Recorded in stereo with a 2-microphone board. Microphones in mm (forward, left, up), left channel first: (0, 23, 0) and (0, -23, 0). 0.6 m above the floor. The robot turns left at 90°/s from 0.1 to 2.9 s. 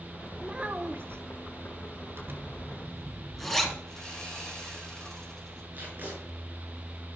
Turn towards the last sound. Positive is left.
turn(degrees=-40)  # may be behind; listen again after turning